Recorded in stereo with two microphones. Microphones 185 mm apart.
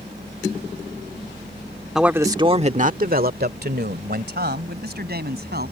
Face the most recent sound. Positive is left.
turn(degrees=-60)  # may be behind; listen again after turning